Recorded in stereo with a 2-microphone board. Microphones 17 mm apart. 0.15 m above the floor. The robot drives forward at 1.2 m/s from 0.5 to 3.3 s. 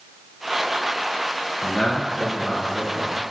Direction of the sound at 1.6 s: 25° left (ahead or behind).